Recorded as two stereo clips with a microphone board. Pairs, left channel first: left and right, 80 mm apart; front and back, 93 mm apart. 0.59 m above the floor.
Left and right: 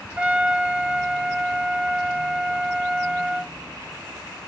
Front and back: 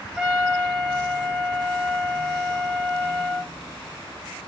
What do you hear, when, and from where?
0.2 s a trumpet: 110° right, 0.9 m